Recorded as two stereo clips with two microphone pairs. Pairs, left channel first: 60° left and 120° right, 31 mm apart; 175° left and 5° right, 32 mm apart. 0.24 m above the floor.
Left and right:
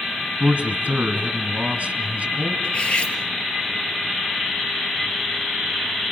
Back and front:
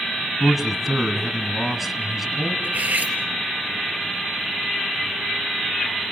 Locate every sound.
0.4 s a man speaking: 90° right, 2 m
2.6 s cutlery clinking: 10° left, 3 m